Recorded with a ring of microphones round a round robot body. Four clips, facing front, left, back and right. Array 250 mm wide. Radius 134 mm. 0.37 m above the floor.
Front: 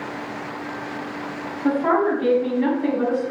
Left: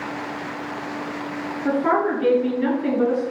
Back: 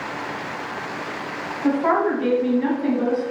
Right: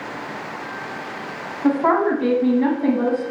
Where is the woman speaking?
100° right, 3 m; by 3.3 s 75° right, 2.5 m.